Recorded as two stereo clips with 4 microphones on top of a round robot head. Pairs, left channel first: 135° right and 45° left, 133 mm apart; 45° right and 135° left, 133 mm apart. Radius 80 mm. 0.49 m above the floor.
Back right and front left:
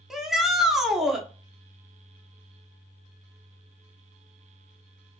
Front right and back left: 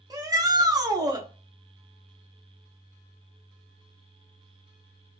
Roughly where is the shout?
Behind left.